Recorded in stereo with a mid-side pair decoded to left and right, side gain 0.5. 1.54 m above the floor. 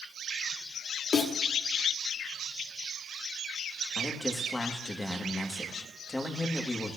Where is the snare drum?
40° left, 2.5 m.